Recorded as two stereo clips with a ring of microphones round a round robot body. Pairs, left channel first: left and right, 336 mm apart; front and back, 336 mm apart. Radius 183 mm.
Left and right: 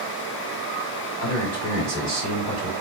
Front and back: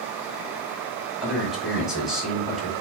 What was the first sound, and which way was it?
A man speaking, 90° right.